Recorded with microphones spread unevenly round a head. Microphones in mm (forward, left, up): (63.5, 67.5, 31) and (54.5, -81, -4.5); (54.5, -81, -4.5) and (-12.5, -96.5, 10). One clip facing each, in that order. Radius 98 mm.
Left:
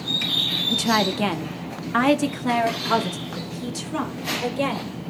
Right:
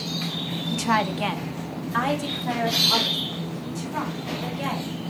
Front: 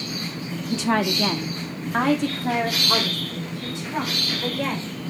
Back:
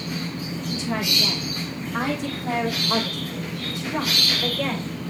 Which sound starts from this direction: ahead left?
A woman speaking, at 0.7 s.